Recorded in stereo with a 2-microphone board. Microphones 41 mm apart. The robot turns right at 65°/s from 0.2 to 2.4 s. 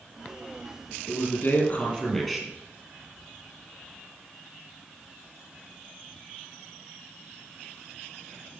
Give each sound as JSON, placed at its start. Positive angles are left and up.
{"t": 1.1, "sound": "a man speaking", "azimuth_deg": 95, "distance_m": 4.0}